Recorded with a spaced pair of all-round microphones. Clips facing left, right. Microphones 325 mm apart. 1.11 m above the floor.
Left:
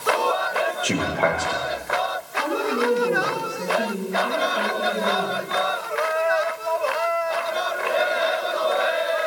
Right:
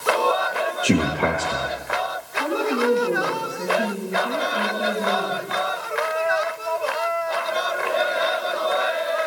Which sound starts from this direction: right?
A man speaking, at 0.8 s.